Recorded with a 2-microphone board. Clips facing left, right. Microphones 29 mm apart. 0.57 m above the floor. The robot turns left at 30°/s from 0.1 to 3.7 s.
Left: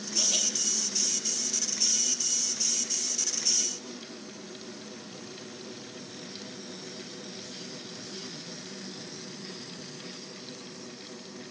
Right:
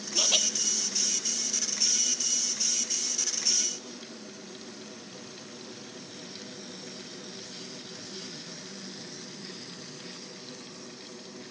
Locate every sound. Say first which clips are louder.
0.1 s laughter: right 4 dB; 35° right (ahead or behind), 0.9 m